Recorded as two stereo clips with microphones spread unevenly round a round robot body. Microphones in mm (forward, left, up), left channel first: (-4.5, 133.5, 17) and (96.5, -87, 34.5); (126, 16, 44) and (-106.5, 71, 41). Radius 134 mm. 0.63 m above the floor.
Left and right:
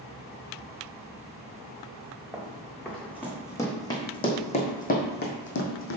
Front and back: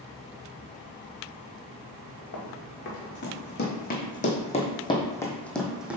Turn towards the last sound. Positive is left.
turn(degrees=85)